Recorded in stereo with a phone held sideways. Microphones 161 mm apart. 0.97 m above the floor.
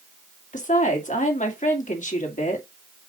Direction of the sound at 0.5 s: 55° left (ahead or behind).